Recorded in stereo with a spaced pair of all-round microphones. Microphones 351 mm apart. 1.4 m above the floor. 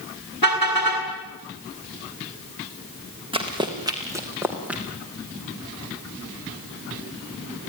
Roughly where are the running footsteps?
Centre.